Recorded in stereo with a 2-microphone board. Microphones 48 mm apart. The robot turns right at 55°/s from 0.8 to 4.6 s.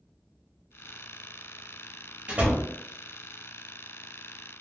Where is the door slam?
25° right (ahead or behind), 0.9 m; by 2.7 s 35° right (ahead or behind), 0.9 m.